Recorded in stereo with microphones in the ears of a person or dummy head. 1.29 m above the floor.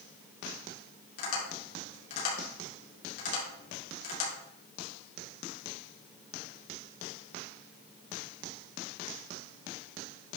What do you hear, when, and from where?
1.2 s tapping: 60° left (ahead or behind), 3.5 m